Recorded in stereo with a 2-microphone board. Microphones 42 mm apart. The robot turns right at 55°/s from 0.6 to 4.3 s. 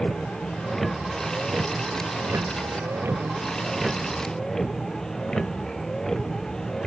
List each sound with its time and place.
0.0 s a vehicle: 15° left (ahead or behind)